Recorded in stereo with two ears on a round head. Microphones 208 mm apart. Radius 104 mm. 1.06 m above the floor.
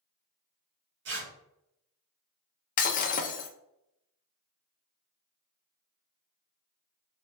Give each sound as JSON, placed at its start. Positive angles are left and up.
{"t": 1.1, "sound": "tearing paper", "side_deg": -50, "distance_m": 1.4}
{"t": 2.8, "sound": "breaking glass", "side_deg": 35, "distance_m": 0.5}